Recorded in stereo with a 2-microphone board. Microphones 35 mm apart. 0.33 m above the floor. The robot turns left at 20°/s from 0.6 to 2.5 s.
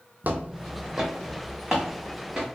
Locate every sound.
0.2 s footsteps: 50° right (ahead or behind), 0.5 m; by 2.5 s 15° right (ahead or behind), 1.3 m